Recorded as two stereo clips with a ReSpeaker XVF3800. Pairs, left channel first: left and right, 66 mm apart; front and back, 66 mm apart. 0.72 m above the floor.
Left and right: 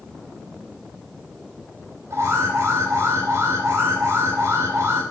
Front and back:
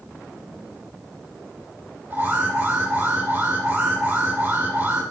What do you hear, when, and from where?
2.1 s an alarm: 130° right, 4.5 m